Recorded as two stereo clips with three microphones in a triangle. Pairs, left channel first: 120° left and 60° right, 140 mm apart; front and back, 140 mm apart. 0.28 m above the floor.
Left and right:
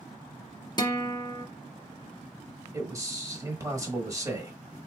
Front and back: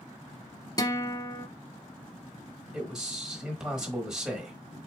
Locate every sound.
0.8 s a guitar: 65° left, 0.7 m
2.7 s a man speaking: 100° right, 1.2 m